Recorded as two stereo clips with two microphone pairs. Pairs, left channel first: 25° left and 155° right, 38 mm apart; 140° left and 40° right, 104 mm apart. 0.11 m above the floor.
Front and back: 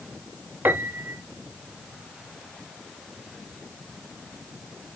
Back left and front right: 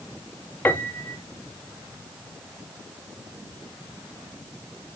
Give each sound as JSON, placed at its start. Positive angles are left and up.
{"t": 0.7, "sound": "a piano", "azimuth_deg": -150, "distance_m": 0.8}